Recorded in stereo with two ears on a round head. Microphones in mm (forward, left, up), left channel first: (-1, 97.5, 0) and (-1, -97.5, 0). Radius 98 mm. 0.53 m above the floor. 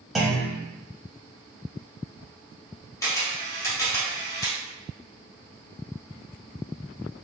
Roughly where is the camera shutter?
Centre.